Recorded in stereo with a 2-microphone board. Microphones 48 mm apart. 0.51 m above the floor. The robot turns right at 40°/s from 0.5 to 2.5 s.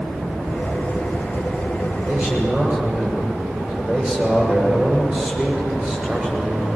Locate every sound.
2.1 s a man speaking: 50° right (ahead or behind), 7 m; by 6.7 s 35° right (ahead or behind), 7 m